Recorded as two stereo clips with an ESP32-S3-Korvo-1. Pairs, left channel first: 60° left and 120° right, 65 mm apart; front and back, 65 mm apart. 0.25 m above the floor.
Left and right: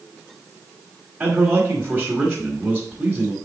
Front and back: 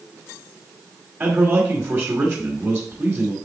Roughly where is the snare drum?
I don't hear a snare drum.